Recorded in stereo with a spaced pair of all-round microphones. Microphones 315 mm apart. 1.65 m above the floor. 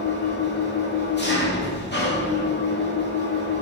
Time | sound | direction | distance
0.0 | an engine running | 35° left (ahead or behind) | 2 m